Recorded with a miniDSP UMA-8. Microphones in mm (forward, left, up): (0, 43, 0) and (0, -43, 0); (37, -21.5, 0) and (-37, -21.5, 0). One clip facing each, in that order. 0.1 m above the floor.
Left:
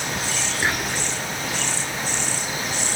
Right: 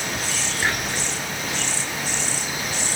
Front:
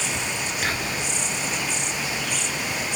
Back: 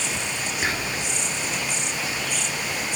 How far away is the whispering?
About 1.1 m.